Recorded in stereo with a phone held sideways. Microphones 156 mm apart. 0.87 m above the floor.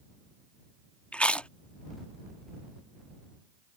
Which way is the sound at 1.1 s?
5° left (ahead or behind).